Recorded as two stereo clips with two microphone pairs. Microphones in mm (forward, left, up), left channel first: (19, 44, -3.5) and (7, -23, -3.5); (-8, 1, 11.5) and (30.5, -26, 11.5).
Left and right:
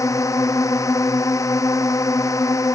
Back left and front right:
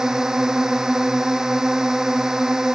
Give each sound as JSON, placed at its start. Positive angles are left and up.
{"t": 0.0, "sound": "a drone", "azimuth_deg": 40}